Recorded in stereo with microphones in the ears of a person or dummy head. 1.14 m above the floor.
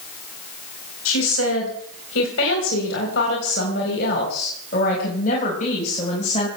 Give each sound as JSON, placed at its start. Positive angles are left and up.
{"t": 1.1, "sound": "a woman speaking", "side_deg": 85, "distance_m": 4.0}